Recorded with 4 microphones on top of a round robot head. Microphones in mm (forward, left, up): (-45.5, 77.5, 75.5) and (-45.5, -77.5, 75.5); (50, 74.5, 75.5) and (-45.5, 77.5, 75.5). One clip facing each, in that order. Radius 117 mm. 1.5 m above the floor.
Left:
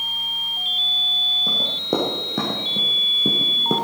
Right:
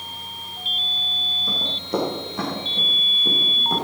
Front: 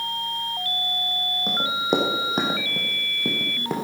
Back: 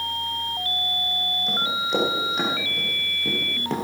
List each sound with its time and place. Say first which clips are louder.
1.5 s running footsteps: left 3 dB, front 4 dB; 35° left, 4.5 m; by 3.8 s 80° left, 2 m